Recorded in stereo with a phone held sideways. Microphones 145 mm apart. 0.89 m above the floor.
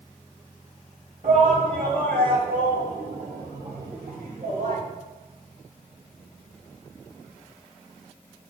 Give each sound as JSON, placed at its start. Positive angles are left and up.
{"t": 1.2, "sound": "a shout", "side_deg": -70, "distance_m": 6.5}